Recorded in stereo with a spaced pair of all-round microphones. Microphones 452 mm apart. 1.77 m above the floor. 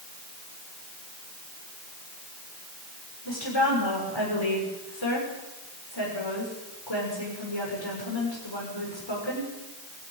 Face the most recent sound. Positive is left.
turn(degrees=70)  # may be behind; listen again after turning